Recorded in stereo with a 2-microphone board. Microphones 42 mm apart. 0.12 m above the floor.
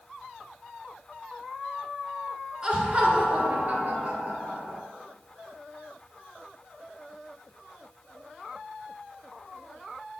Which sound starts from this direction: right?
Laughter, at 2.6 s.